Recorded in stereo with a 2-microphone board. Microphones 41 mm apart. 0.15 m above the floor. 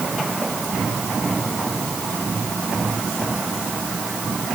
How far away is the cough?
No cough in this recording.